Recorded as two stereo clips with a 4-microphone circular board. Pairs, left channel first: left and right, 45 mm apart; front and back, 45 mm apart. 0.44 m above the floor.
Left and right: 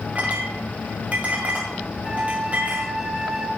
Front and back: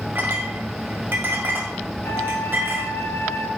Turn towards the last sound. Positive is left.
turn(degrees=-10)